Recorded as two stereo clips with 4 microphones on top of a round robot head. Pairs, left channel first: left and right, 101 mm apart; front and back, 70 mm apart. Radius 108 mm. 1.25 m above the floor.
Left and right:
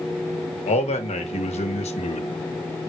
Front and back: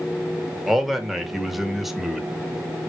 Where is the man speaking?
90° left, 2 m.